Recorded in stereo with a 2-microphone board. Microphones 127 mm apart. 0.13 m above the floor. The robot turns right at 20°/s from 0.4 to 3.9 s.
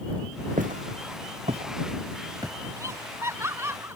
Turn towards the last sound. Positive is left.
turn(degrees=-20)  # may be behind; listen again after turning